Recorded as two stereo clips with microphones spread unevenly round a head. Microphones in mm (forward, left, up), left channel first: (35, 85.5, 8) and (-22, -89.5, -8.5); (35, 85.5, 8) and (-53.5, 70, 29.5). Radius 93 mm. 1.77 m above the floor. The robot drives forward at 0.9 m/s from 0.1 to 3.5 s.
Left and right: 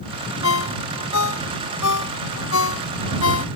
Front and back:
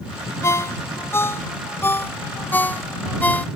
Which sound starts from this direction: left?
A ringtone, at 0.4 s.